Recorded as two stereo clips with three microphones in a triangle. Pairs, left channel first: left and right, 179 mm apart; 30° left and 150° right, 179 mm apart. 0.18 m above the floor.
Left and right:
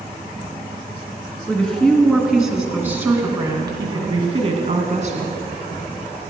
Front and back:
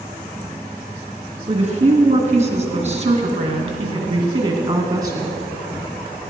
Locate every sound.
1.5 s a woman speaking: 170° left, 2.5 m; by 5.4 s 85° right, 2 m